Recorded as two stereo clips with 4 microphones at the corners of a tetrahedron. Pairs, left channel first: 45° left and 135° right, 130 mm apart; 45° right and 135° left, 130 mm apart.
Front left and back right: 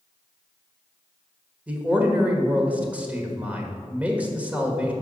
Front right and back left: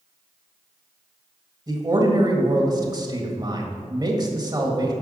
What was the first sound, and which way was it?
A man speaking, 155° left.